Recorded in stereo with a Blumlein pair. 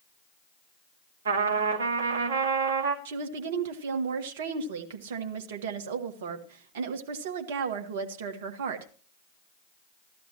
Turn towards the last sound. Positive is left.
turn(degrees=-55)